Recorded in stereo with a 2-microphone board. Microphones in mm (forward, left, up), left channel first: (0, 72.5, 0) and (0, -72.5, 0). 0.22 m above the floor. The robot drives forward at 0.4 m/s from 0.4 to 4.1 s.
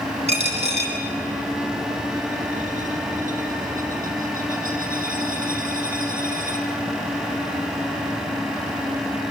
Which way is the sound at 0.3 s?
45° right (ahead or behind).